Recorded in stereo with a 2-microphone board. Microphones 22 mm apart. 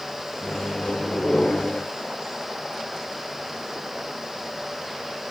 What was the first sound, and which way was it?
A microwave, 55° left (ahead or behind).